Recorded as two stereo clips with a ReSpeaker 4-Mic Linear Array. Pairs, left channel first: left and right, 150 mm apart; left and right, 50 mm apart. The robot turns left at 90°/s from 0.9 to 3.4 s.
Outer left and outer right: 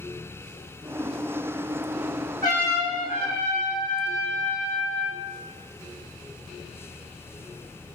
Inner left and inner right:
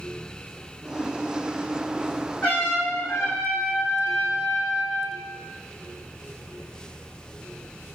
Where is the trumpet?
160° left, 5.5 m; by 5.2 s 70° left, 5.5 m.